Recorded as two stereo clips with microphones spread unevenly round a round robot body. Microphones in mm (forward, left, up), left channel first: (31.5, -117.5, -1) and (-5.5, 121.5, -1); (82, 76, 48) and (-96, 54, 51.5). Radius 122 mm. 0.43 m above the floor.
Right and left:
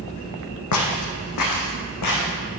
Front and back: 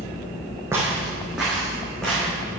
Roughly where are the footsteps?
Right.